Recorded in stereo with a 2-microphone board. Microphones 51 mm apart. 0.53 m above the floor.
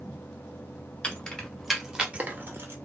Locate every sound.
1.0 s keys jangling: 20° left (ahead or behind), 1.3 m; by 2.8 s 55° right (ahead or behind), 1.0 m